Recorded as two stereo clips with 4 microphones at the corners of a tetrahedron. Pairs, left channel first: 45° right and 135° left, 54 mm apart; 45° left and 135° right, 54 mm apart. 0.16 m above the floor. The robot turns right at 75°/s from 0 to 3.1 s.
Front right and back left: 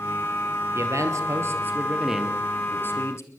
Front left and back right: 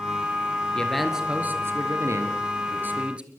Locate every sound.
0.8 s a man speaking: 115° left, 3 m; by 3.3 s 70° right, 3 m